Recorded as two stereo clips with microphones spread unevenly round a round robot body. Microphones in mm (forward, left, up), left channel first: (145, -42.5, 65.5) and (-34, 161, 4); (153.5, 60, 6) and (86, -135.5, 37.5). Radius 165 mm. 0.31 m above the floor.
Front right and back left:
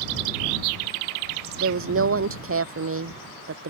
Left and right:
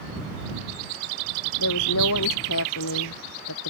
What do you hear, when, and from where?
1.6 s a woman speaking: 90° left